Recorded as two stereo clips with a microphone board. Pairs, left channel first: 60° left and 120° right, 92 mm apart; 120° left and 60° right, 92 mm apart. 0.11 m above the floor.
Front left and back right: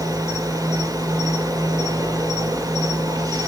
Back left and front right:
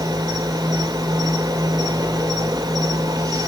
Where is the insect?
85° right, 3.5 m.